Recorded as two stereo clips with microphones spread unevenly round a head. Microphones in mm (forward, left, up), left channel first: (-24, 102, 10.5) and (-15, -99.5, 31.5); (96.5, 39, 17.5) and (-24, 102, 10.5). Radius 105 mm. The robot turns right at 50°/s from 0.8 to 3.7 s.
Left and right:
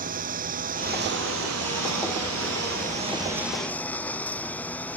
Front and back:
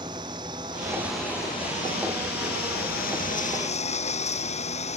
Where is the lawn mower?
135° right; by 5.0 s 10° left.